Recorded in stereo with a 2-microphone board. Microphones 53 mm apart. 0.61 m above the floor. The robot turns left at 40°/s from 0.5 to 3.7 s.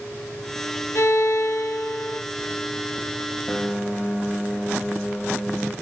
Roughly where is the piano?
Centre.